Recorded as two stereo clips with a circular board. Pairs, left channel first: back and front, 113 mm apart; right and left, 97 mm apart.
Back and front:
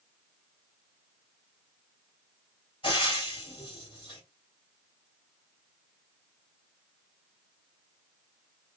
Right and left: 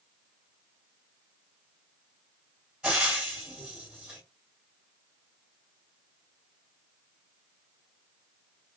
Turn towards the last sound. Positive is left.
turn(degrees=170)